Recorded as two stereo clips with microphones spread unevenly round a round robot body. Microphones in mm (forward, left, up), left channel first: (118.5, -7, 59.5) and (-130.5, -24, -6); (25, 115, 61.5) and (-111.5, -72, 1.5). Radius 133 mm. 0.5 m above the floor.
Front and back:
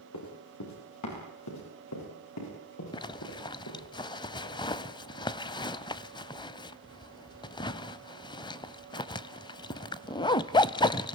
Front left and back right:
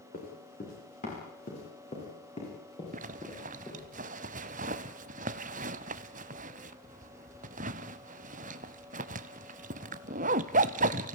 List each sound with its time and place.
0.1 s running footsteps: straight ahead, 9 m; by 3.8 s 20° right, 12.5 m
2.9 s a zipper: 60° right, 0.6 m